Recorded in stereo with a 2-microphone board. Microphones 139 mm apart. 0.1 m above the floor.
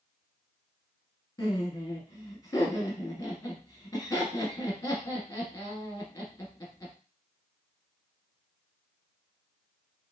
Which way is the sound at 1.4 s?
25° left (ahead or behind).